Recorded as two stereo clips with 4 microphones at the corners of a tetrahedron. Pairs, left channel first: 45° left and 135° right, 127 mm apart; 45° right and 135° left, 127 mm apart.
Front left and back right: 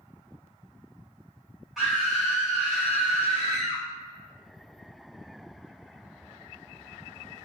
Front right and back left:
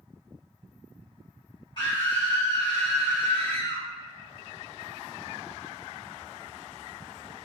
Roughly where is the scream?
Ahead right.